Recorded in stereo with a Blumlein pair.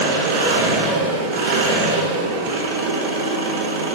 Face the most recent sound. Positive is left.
turn(degrees=-55)